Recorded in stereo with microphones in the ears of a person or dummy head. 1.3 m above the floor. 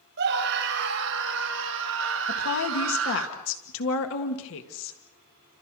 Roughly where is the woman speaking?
Left.